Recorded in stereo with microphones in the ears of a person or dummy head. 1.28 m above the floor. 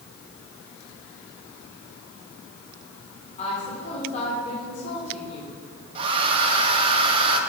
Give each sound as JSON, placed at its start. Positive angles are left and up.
{"t": 3.4, "sound": "a woman speaking", "side_deg": 35, "distance_m": 3.5}
{"t": 6.0, "sound": "a hair dryer", "side_deg": -30, "distance_m": 1.8}